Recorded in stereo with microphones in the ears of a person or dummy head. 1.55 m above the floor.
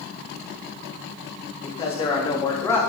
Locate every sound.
1.6 s a man speaking: 35° left (ahead or behind), 3.5 m; by 2.8 s 15° left (ahead or behind), 3.5 m